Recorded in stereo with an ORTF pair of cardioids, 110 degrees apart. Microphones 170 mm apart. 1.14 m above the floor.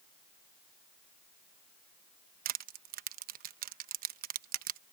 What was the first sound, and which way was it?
Crushing, 60° right.